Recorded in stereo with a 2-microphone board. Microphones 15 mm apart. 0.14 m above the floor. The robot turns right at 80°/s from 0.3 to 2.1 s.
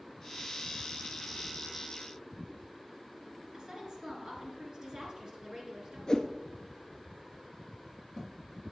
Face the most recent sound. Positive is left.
turn(degrees=40)  # may be behind; listen again after turning